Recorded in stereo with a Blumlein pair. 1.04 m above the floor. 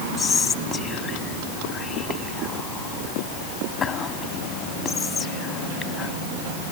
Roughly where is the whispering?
Ahead left.